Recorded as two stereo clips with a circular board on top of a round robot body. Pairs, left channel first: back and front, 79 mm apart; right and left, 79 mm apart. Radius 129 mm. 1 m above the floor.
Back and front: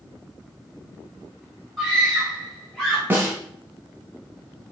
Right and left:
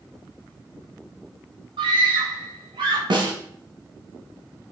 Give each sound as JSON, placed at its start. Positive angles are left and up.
{"t": 1.8, "sound": "a scream", "azimuth_deg": 95, "distance_m": 4.0}
{"t": 3.1, "sound": "a snare drum", "azimuth_deg": 65, "distance_m": 2.5}